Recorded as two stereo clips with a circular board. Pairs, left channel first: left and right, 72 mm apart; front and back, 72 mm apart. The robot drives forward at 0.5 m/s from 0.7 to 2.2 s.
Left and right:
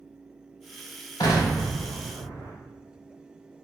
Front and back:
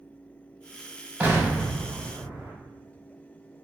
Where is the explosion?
110° left, 0.8 m; by 2.5 s 140° left, 1.1 m.